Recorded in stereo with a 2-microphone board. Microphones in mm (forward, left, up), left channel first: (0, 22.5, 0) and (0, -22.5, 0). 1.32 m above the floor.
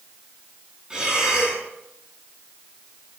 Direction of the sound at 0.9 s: 15° right (ahead or behind).